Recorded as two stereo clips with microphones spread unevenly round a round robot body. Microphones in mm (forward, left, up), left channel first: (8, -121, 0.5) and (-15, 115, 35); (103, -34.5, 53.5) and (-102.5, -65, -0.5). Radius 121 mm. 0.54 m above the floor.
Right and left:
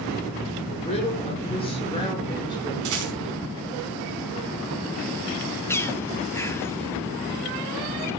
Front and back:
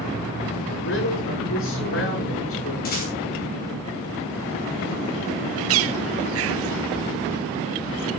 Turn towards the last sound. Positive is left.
turn(degrees=-165)